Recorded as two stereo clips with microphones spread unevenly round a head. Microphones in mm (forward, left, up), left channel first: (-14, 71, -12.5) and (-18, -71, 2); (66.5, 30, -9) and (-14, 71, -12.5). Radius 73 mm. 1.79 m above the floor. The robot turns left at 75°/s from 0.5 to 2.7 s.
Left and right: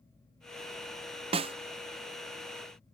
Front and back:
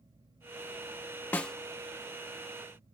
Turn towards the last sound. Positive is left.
turn(degrees=165)